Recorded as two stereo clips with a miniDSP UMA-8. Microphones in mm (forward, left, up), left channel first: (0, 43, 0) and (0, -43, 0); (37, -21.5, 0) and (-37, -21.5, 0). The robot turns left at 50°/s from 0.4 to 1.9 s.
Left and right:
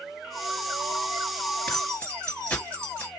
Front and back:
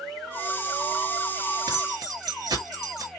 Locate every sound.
1.7 s keys jangling: 175° left, 2 m; by 3.1 s 160° left, 2 m